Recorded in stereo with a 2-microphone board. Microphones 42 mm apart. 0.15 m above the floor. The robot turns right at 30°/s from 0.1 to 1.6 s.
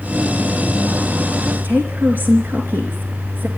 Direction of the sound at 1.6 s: 50° right (ahead or behind).